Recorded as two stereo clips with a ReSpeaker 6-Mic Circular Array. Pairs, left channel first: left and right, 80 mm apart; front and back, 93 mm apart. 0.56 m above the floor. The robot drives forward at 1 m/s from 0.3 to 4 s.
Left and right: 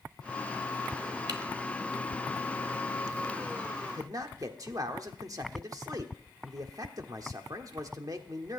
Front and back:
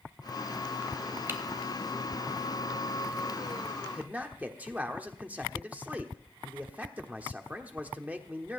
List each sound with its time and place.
1.3 s typing on a keyboard: 115° right, 1.3 m; by 1.4 s 120° right, 1.3 m
3.8 s a man speaking: 100° right, 1.1 m; by 8.6 s 110° right, 1.1 m